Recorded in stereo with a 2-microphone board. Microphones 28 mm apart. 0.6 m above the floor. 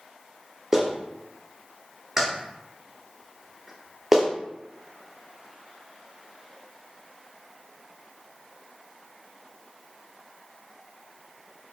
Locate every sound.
0.7 s a clap: 10° right (ahead or behind), 0.6 m